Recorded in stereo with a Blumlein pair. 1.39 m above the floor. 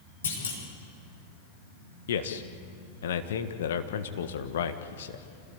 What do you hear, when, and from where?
0.2 s a clunk: 65° left, 4.5 m
2.1 s a man speaking: 60° left, 1.7 m